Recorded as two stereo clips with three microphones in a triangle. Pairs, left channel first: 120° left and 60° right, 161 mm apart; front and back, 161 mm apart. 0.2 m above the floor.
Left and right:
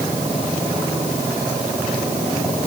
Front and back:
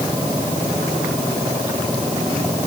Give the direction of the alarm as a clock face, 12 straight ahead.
No alarm in this recording.